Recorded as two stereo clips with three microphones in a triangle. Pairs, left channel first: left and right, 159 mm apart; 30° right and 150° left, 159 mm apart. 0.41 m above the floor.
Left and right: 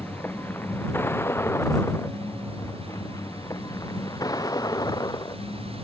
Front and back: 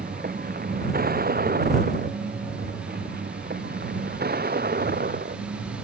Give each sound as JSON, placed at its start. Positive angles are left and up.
{"t": 0.0, "sound": "a vehicle", "azimuth_deg": 170}